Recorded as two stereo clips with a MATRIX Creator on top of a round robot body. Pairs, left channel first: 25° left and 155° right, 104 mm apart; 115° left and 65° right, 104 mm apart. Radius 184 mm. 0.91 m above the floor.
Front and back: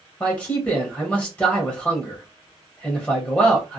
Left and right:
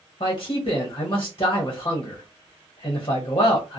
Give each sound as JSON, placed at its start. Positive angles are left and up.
{"t": 0.2, "sound": "a man speaking", "azimuth_deg": 90, "distance_m": 1.1}